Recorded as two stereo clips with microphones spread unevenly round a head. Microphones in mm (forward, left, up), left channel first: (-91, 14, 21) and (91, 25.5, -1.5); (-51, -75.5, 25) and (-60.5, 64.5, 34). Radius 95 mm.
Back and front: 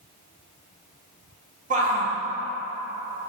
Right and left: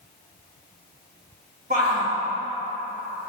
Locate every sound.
1.7 s a shout: 50° left, 2.5 m